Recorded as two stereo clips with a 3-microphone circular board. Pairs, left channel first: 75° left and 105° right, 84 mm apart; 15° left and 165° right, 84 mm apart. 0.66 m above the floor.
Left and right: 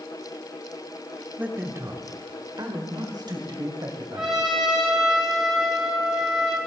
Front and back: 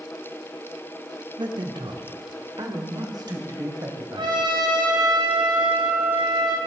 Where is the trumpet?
170° left, 2 m.